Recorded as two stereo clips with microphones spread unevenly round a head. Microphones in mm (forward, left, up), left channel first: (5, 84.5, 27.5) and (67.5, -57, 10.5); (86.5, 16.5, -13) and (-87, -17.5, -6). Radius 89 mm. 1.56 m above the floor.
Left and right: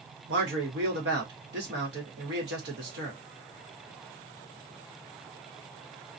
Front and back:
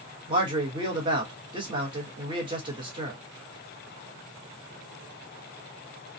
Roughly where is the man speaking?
Right.